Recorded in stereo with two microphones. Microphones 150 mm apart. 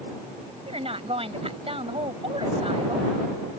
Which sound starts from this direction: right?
A woman speaking, at 0.7 s.